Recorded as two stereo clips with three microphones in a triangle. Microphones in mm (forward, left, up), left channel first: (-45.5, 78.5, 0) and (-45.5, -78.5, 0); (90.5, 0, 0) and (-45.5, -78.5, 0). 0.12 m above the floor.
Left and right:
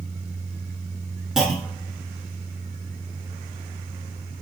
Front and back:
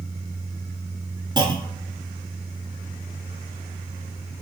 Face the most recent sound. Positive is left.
turn(degrees=-175)